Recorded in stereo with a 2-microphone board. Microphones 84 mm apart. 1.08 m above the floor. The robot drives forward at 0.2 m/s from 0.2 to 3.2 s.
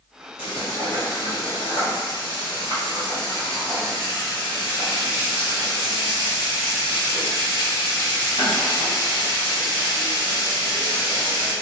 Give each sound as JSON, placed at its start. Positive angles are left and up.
{"t": 0.4, "sound": "frying", "side_deg": 80, "distance_m": 1.5}